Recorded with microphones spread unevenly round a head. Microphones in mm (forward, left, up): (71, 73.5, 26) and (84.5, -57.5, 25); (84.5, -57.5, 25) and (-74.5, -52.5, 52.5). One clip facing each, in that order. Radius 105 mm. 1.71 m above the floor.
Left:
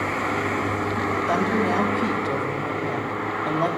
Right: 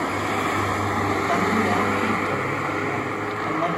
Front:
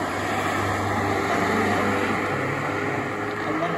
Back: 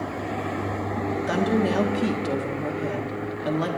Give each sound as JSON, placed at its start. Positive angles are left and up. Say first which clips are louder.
{"t": 1.3, "sound": "a woman speaking", "louder": "left 1 dB, back 4 dB", "azimuth_deg": 160, "distance_m": 1.8}